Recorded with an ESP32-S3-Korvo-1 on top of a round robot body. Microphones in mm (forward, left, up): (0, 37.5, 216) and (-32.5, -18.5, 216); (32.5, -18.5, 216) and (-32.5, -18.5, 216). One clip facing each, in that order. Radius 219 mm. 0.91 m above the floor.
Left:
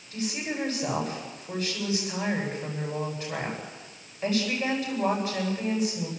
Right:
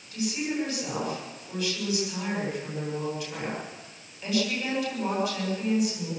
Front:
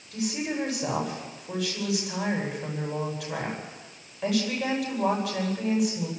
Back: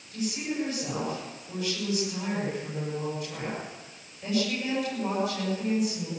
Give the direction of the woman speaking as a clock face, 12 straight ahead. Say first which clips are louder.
Right 2 dB, front 2 dB; 12 o'clock.